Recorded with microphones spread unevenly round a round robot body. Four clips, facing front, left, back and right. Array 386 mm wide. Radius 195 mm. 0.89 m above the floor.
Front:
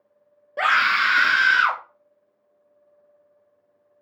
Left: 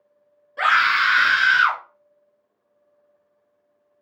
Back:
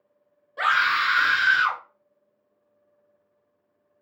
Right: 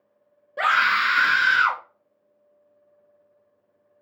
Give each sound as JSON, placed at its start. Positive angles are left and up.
{"t": 0.6, "sound": "a scream", "azimuth_deg": -20, "distance_m": 1.6}